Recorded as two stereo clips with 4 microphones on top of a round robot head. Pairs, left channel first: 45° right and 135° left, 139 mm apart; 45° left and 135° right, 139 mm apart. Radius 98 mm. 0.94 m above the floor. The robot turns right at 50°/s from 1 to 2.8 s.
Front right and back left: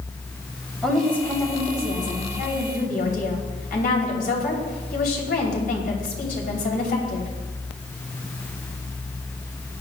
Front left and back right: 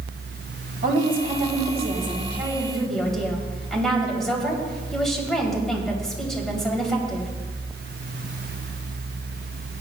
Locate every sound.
0.8 s a woman speaking: 130° right, 3 m; by 7.3 s 40° right, 3 m